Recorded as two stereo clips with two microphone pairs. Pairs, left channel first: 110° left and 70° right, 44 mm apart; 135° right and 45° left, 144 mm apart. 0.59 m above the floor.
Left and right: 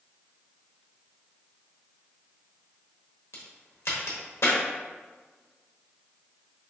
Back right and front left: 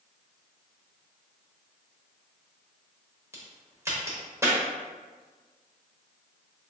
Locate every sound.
3.3 s a crack: 115° left, 1.0 m